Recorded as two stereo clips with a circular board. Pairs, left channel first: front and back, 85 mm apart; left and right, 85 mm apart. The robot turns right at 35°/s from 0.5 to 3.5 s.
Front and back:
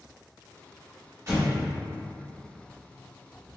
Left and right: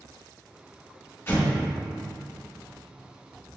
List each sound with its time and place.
1.3 s an explosion: 145° left, 1.2 m; by 1.6 s 155° left, 1.2 m